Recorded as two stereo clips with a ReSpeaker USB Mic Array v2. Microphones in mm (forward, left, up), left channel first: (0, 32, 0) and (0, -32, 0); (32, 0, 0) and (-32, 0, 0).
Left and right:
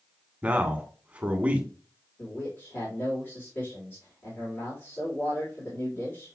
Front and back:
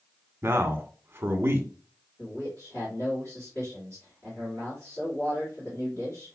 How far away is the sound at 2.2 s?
About 2.5 m.